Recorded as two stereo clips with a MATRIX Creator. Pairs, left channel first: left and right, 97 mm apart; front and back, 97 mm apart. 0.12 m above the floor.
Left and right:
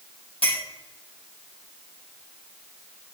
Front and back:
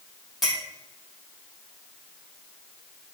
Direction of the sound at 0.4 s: 90° left.